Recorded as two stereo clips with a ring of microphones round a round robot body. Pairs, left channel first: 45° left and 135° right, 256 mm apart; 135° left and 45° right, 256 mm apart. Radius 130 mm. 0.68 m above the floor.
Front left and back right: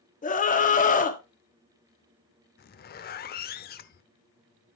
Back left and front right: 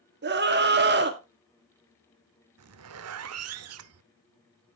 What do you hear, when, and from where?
0.2 s a scream: 10° right, 1.8 m
2.6 s a zipper: 10° right, 0.7 m